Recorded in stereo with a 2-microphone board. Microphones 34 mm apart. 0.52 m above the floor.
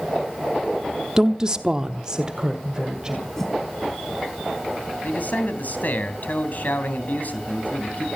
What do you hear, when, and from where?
1.2 s a woman speaking: 15° right (ahead or behind), 0.8 m; by 3.3 s 20° right (ahead or behind), 2.5 m
3.4 s a whoosh: 5° left (ahead or behind), 4 m
5.0 s a man speaking: 55° left (ahead or behind), 3 m